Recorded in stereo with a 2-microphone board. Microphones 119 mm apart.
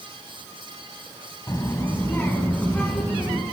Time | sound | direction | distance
1.5 | a child speaking | 30° left (ahead or behind) | 1.1 m